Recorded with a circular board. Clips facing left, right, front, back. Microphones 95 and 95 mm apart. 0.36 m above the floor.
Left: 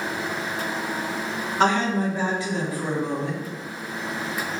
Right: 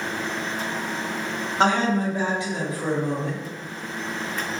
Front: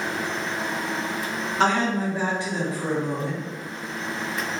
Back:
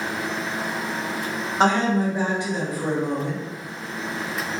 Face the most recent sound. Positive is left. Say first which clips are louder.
# right 1 dB, back 3 dB
turn(degrees=-130)